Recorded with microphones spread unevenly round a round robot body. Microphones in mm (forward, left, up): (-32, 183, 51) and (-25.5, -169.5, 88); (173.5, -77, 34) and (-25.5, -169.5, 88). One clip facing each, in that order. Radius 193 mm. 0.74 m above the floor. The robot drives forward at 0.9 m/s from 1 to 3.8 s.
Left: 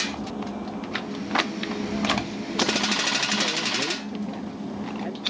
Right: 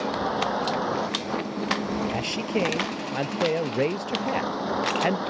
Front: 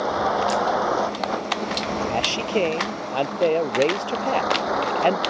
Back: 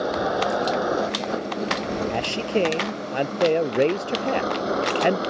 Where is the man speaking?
80° right; by 5.2 s 85° right.